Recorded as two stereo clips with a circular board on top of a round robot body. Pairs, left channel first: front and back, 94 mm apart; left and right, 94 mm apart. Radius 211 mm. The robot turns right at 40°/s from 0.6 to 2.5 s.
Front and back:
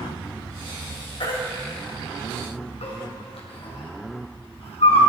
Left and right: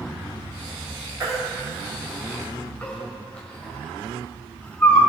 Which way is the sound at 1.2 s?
40° right.